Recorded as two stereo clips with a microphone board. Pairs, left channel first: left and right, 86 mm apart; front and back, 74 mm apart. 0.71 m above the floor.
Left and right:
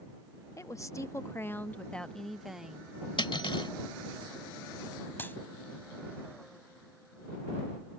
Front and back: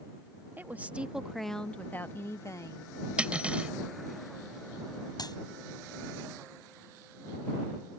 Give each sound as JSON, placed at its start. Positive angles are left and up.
{"t": 0.6, "sound": "a woman speaking", "azimuth_deg": 125}
{"t": 3.2, "sound": "cutlery clinking", "azimuth_deg": 105}
{"t": 5.2, "sound": "a clap", "azimuth_deg": 25}